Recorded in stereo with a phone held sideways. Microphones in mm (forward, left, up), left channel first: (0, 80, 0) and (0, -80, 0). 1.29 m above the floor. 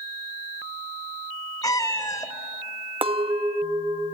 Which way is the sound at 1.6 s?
20° left (ahead or behind).